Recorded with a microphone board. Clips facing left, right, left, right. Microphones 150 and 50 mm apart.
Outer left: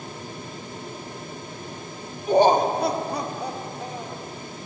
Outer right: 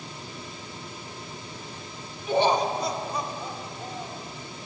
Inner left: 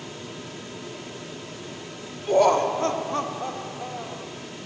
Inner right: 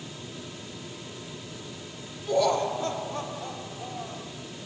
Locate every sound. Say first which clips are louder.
2.3 s laughter: outer left 5 dB, inner left 5 dB; 40° left (ahead or behind), 1.4 m; by 4.3 s 80° left, 2.5 m